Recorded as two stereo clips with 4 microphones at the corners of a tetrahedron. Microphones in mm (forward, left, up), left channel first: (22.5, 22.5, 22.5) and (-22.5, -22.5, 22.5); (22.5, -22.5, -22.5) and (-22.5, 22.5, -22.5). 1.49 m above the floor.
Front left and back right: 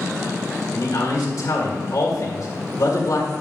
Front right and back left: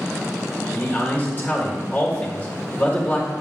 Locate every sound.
0.7 s a man speaking: 25° left, 1.8 m